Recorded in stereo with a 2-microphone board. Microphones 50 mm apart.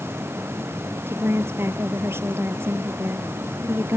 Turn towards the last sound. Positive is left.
turn(degrees=-50)  # may be behind; listen again after turning